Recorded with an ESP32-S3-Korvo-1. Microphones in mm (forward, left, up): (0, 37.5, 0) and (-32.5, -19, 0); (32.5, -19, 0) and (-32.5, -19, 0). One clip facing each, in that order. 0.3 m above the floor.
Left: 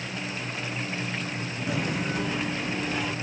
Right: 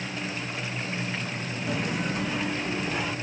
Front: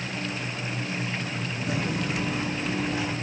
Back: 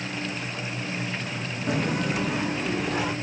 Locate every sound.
1.7 s footsteps: 150° left, 0.9 m; by 3.1 s 155° left, 1.9 m